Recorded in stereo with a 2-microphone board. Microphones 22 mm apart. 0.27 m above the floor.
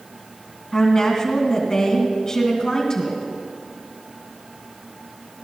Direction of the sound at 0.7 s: 25° left (ahead or behind).